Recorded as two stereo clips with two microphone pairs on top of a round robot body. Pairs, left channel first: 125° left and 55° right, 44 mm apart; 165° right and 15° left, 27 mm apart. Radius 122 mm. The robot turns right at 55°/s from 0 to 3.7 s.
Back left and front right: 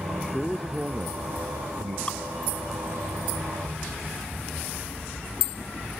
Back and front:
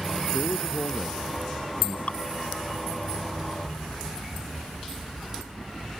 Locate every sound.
0.3 s a man speaking: 165° right; by 2.0 s 75° right
2.1 s dripping: 175° right; by 2.2 s 170° right